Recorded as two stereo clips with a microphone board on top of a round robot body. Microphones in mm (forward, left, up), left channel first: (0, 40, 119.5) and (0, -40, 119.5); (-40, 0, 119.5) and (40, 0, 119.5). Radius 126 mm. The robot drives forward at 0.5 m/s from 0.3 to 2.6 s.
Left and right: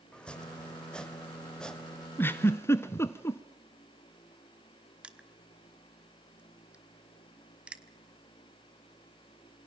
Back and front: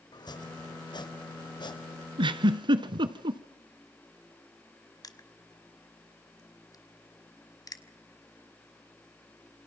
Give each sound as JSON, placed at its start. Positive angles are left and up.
{"t": 0.1, "sound": "chopping", "azimuth_deg": 165, "distance_m": 3.0}
{"t": 2.2, "sound": "a giggle", "azimuth_deg": 25, "distance_m": 1.2}
{"t": 5.0, "sound": "crushing", "azimuth_deg": -165, "distance_m": 2.0}